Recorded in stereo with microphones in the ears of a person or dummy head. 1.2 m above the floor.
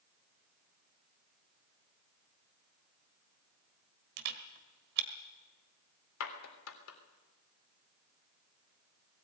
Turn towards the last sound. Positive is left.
turn(degrees=90)